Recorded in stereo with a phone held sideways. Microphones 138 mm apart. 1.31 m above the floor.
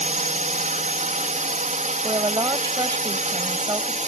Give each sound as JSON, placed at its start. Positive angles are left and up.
{"t": 0.0, "sound": "a drone", "side_deg": -65}
{"t": 2.0, "sound": "a woman speaking", "side_deg": -30}